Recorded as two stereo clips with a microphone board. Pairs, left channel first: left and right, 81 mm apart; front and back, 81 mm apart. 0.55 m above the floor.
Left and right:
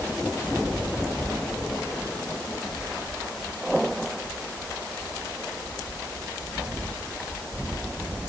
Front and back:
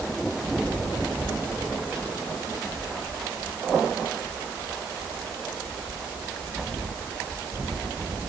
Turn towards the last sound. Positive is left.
No sound to turn to.